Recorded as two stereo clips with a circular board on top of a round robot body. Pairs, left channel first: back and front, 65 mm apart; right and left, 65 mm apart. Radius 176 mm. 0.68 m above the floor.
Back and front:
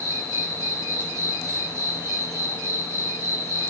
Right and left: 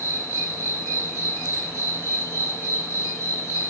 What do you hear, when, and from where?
0.0 s an insect: 40° left, 4 m